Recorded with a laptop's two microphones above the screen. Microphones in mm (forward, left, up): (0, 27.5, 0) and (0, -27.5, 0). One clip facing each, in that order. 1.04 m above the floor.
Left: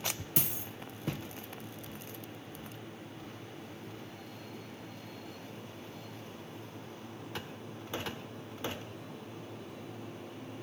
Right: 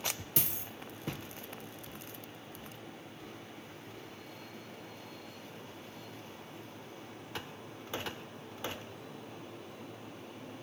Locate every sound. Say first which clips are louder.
0.4 s a dropped coin: left 2 dB; 20° left (ahead or behind), 0.8 m